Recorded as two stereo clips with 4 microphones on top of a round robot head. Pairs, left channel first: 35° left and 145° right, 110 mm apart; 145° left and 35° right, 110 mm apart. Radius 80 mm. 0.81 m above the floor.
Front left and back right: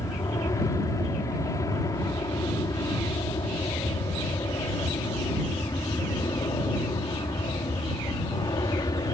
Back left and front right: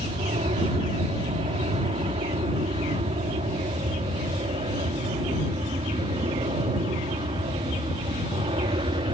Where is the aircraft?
20° right; by 9.2 s 10° right.